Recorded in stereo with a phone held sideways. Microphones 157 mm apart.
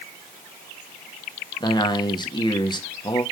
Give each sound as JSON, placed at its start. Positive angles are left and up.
{"t": 1.6, "sound": "a man speaking", "side_deg": 25, "distance_m": 1.4}